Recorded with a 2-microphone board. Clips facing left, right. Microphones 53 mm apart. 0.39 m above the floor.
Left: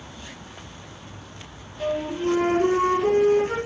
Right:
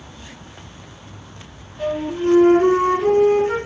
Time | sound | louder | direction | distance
1.8 | a flute | right 4 dB | 40° right (ahead or behind) | 5 m